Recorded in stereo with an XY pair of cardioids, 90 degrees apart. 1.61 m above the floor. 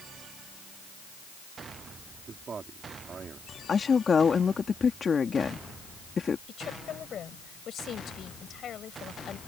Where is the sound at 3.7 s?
40° left.